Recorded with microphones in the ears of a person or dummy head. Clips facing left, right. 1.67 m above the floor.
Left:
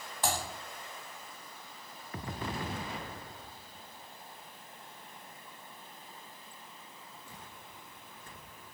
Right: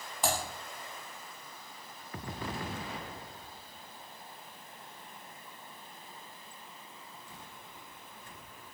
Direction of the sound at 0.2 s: Centre (ahead or behind).